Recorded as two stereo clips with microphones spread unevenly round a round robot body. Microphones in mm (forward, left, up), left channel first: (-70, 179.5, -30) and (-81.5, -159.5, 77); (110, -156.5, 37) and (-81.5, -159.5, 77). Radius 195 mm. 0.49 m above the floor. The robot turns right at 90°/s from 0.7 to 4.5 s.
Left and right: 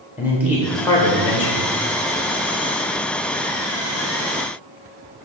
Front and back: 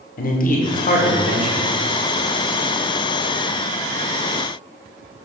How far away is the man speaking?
About 1.2 m.